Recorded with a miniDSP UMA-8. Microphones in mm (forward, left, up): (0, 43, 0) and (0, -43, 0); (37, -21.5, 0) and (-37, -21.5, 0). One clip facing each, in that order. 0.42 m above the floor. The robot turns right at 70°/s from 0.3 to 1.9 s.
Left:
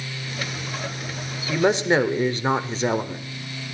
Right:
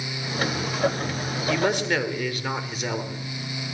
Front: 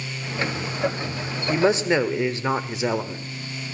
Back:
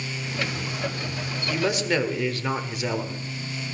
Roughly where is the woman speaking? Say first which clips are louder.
Left 4 dB, front 5 dB; ahead left.